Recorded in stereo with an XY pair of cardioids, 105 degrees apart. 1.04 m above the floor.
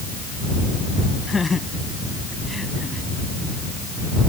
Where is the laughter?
25° left; by 3.1 s 15° left.